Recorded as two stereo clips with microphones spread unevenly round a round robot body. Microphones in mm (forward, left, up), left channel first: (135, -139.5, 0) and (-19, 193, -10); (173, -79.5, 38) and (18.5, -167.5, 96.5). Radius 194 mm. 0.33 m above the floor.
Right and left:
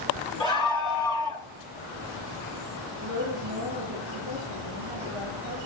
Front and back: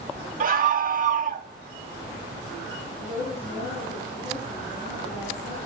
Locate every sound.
0.4 s a scream: 135° right, 0.9 m
3.0 s a woman speaking: 65° left, 10 m